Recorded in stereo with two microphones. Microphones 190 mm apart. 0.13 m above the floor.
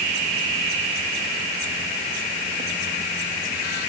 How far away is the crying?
I don't hear crying.